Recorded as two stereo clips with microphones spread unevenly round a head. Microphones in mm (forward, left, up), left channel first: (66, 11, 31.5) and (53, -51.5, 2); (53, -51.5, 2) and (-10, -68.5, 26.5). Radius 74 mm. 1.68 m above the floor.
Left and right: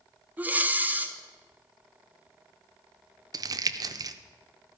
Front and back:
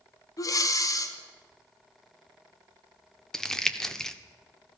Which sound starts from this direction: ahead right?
Breathing, at 0.4 s.